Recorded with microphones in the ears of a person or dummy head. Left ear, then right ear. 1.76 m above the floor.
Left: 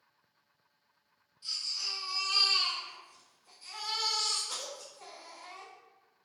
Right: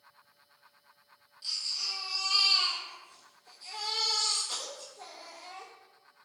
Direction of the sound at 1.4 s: 30° right (ahead or behind).